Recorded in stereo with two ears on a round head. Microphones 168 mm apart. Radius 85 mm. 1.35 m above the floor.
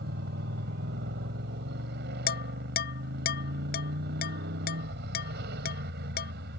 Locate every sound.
0.0 s a motorcycle: 65° right (ahead or behind)
2.3 s dishes clattering: 55° left (ahead or behind)